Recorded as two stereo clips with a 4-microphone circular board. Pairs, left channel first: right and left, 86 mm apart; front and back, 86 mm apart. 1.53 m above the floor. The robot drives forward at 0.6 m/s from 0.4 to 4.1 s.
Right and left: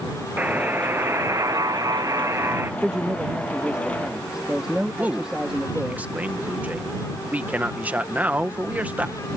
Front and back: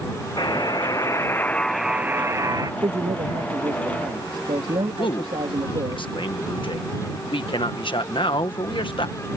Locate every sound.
0.4 s a buzzer: 25° left; by 2.7 s 150° left
2.8 s a man speaking: 170° left
5.0 s a man speaking: 20° left